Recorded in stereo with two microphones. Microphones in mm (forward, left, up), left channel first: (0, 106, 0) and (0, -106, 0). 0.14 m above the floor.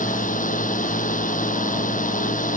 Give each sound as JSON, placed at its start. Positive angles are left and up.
{"t": 0.0, "sound": "a drone", "side_deg": 40}